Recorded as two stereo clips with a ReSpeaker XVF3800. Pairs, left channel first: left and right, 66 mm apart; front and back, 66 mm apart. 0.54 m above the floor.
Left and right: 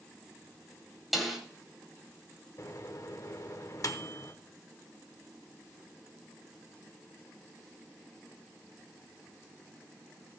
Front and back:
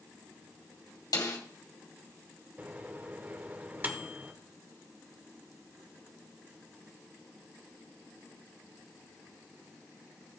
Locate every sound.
1.1 s a snare drum: straight ahead, 2.5 m
2.6 s a microwave: 120° left, 0.9 m